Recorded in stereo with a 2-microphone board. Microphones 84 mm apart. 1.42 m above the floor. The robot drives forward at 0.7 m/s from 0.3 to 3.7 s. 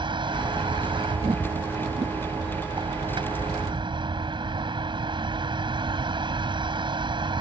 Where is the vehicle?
75° right (ahead or behind).